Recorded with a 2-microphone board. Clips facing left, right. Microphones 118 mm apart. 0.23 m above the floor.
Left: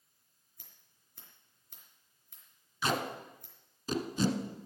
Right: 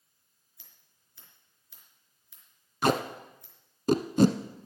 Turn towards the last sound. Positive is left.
turn(degrees=-60)  # may be behind; listen again after turning